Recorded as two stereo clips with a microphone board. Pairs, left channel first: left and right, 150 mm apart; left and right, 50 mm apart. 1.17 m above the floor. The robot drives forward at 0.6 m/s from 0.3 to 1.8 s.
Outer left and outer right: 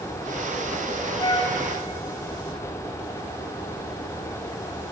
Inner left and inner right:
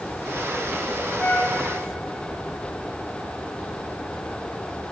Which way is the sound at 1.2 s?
30° left (ahead or behind).